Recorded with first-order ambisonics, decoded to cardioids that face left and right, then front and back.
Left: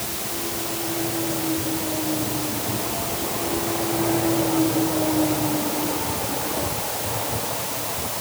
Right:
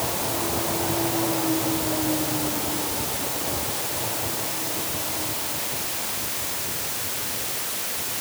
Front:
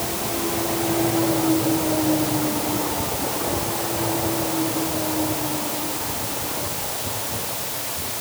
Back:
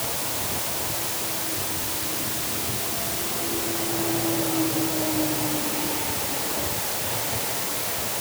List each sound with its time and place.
Only background noise.